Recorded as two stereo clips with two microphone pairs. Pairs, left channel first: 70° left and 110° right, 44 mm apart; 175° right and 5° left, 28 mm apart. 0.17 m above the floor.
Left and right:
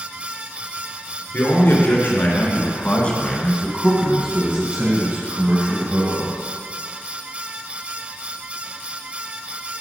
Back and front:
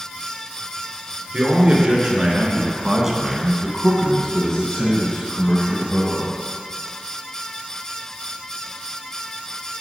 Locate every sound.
1.3 s a man speaking: 55° left, 2 m; by 6.4 s 130° right, 2.5 m